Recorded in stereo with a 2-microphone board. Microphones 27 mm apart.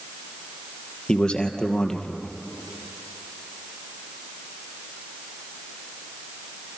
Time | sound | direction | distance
1.1 | a man speaking | 30° left (ahead or behind) | 2.5 m